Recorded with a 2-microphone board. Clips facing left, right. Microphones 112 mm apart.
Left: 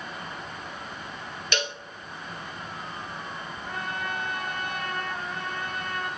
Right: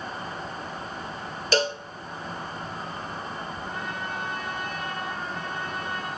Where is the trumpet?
55° left (ahead or behind), 5 m.